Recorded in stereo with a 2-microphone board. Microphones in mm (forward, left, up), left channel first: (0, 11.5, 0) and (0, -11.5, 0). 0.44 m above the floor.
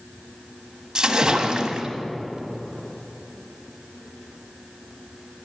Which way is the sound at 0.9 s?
30° right (ahead or behind).